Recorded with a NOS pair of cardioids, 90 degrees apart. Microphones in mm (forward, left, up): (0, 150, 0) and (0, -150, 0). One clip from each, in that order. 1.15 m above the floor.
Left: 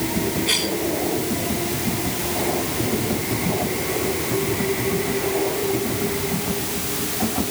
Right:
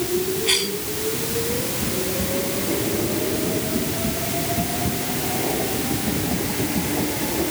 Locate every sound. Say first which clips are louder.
0.5 s a cough: even; 5° right